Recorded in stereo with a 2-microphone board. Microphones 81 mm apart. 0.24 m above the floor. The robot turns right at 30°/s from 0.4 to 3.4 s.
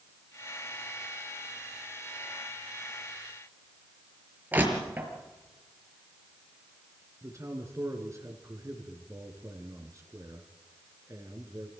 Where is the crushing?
25° right (ahead or behind), 5 m.